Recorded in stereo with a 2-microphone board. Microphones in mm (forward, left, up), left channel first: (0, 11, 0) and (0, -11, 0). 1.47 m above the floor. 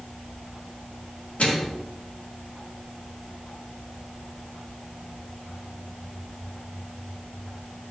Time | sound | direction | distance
1.4 | a microwave | 85° left | 2.5 m